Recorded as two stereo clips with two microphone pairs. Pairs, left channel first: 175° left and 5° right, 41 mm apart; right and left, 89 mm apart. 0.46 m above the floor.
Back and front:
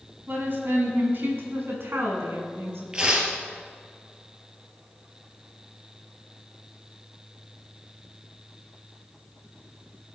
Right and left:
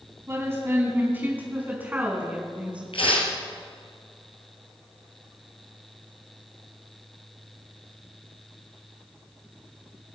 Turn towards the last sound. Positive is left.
turn(degrees=-80)